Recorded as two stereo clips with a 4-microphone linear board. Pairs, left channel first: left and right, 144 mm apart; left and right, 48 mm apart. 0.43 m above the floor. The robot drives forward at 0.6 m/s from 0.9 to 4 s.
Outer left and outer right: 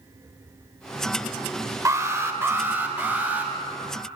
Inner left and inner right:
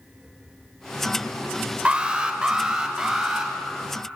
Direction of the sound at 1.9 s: 20° right (ahead or behind).